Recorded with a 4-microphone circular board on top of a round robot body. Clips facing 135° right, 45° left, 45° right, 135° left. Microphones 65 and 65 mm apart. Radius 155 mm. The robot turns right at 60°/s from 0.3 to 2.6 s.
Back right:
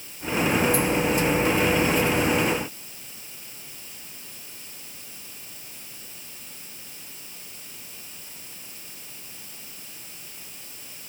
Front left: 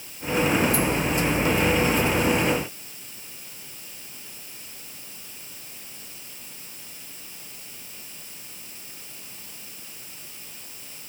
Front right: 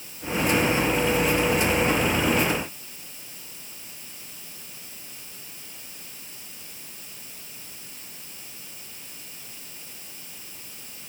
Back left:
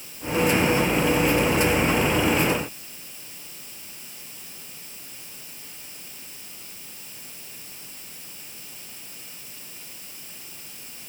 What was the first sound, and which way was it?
Only background noise.